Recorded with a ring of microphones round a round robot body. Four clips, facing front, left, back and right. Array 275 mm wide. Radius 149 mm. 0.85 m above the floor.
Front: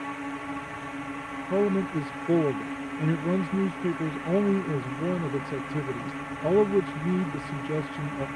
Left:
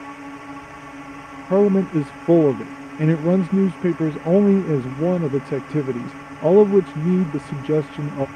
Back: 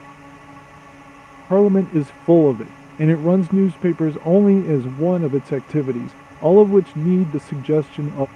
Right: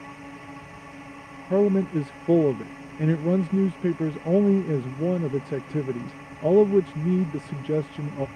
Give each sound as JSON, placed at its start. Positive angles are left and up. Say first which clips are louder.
{"t": 0.0, "sound": "a drone", "louder": "left 6 dB, front 7 dB", "azimuth_deg": 40}
{"t": 1.5, "sound": "a man speaking", "louder": "left 5 dB, back 11 dB", "azimuth_deg": 155}